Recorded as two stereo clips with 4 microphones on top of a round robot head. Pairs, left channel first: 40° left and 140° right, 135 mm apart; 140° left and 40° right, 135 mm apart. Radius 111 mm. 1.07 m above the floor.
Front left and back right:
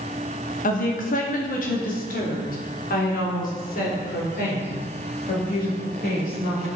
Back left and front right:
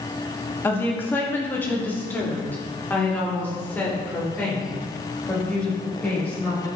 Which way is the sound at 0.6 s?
60° left.